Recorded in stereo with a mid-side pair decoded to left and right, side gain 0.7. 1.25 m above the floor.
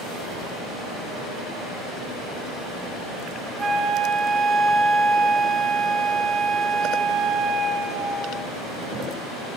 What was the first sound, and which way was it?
A flute, 25° right.